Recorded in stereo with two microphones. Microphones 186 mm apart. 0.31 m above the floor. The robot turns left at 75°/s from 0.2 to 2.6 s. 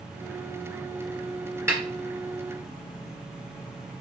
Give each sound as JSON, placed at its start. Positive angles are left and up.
{"t": 1.7, "sound": "a snare drum", "side_deg": -15, "distance_m": 1.8}